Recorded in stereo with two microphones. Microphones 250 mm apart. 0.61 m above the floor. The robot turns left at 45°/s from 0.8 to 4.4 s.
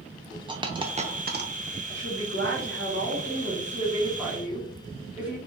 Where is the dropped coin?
20° right (ahead or behind), 0.6 m; by 1.5 s 50° right (ahead or behind), 0.6 m.